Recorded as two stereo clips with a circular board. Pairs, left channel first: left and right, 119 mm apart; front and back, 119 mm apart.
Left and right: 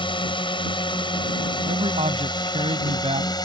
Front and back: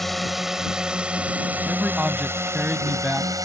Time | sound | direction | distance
0.0 | a drone | 90° left | ?
1.7 | a man speaking | 100° right | ?